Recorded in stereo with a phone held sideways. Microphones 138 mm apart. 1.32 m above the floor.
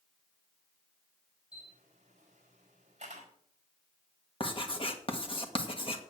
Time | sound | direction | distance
1.5 | a camera shutter | 55° right (ahead or behind) | 5 m
4.4 | writing | 40° left (ahead or behind) | 1.6 m